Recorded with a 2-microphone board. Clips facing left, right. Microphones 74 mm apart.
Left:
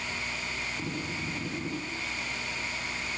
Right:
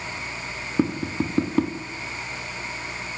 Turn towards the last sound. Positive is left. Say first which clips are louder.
# right 11 dB
turn(degrees=-70)  # may be behind; listen again after turning